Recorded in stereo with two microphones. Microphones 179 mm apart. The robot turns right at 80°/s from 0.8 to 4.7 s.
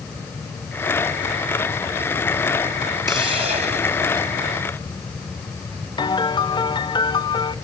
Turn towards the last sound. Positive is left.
turn(degrees=25)  # may be behind; listen again after turning